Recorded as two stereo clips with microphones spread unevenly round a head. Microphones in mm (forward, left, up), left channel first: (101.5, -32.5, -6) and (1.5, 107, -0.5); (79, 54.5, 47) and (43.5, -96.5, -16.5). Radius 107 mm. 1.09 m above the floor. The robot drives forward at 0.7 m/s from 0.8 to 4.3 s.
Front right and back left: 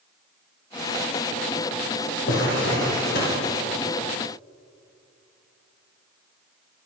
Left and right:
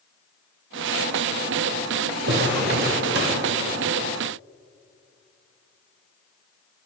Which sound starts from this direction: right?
A drawer, at 2.3 s.